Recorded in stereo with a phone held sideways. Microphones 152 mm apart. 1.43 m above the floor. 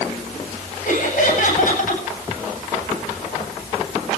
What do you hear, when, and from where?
0.8 s laughter: 60° left (ahead or behind), 9 m